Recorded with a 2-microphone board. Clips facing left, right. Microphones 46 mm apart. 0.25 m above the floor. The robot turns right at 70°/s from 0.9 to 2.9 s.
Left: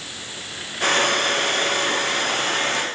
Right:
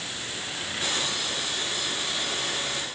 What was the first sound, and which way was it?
Only background noise.